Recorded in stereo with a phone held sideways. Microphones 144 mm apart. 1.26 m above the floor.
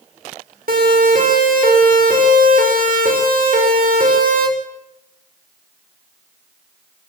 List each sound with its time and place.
0.7 s a siren: 80° right, 6.5 m; by 4.5 s 75° right (ahead or behind), 7.5 m